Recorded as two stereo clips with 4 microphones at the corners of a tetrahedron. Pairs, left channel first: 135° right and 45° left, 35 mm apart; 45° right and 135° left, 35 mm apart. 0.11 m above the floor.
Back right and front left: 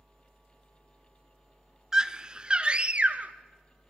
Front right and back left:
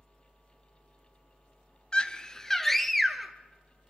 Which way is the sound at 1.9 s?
15° right.